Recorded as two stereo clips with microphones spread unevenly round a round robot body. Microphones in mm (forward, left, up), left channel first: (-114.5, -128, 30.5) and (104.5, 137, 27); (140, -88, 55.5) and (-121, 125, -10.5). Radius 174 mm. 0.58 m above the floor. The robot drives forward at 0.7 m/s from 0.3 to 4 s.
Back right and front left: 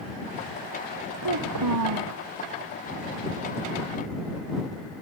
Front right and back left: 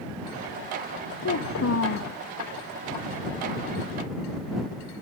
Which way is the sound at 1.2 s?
10° left.